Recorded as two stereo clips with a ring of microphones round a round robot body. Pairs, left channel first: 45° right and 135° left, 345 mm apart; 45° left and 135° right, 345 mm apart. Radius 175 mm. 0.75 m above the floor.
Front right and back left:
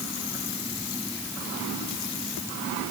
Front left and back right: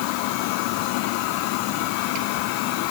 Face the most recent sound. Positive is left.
No sound to turn to.